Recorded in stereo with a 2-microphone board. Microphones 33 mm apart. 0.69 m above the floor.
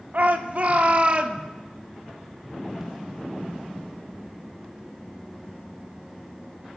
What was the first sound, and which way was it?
A shout, 55° right (ahead or behind).